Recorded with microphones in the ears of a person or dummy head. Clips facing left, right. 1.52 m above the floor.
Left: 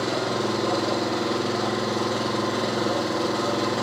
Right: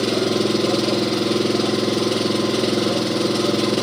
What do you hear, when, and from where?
0.0 s an engine running: 35° right (ahead or behind), 0.9 m